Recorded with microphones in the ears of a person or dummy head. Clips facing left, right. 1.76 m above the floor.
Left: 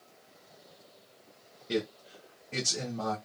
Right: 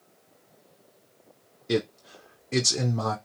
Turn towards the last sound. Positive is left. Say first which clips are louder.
# right 5 dB
turn(degrees=-75)  # may be behind; listen again after turning